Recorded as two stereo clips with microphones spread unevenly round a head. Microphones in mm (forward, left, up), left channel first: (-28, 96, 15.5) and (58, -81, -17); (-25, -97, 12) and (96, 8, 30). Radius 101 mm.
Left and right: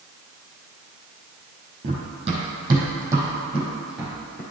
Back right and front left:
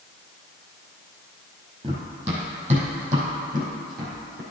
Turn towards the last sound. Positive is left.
turn(degrees=35)